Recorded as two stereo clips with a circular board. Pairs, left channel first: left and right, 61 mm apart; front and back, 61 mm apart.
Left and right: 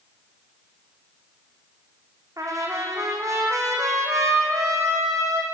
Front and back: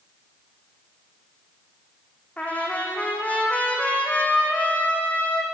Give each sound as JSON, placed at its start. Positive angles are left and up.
{"t": 2.4, "sound": "a trumpet", "azimuth_deg": -65, "distance_m": 5.0}